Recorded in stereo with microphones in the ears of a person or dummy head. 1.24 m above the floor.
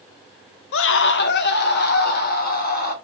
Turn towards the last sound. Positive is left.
turn(degrees=45)  # may be behind; listen again after turning